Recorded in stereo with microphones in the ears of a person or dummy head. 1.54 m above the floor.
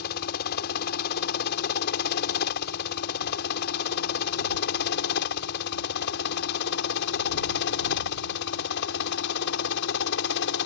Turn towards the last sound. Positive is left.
turn(degrees=65)  # may be behind; listen again after turning